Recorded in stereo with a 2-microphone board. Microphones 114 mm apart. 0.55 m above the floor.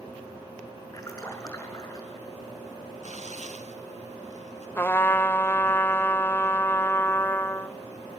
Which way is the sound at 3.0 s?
75° right (ahead or behind).